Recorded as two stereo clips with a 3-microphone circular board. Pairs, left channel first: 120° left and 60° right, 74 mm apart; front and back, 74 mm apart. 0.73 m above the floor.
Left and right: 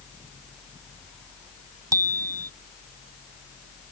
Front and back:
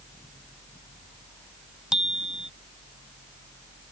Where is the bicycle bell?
100° right.